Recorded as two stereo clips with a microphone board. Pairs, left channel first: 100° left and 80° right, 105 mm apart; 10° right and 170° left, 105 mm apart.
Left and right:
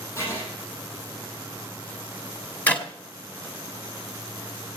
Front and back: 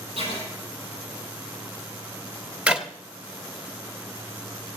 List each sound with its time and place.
0.2 s writing: 160° left, 9.5 m
2.7 s a clap: 115° left, 1.1 m